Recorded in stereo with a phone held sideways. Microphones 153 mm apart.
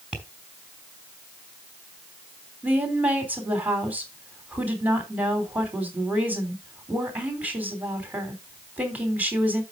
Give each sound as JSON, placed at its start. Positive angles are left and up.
{"t": 0.1, "sound": "tapping", "side_deg": -10, "distance_m": 4.0}
{"t": 2.6, "sound": "a woman speaking", "side_deg": -10, "distance_m": 3.5}